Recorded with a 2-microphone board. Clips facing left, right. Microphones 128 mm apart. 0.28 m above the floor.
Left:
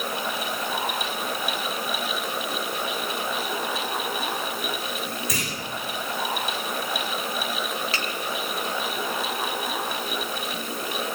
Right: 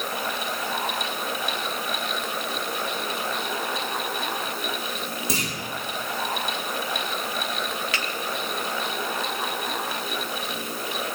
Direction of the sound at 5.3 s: 30° right (ahead or behind).